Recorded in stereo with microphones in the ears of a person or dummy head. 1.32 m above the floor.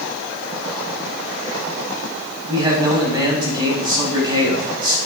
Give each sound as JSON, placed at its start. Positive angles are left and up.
{"t": 2.5, "sound": "a man speaking", "side_deg": -30, "distance_m": 7.0}